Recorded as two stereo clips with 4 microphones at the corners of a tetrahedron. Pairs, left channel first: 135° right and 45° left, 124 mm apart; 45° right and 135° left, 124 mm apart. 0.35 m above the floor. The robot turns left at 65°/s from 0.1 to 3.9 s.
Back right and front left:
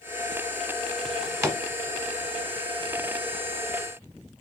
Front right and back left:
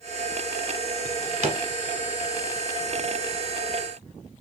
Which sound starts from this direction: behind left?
A drawer, at 1.1 s.